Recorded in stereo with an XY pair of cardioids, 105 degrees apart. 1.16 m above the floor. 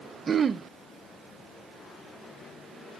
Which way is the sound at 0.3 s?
40° right.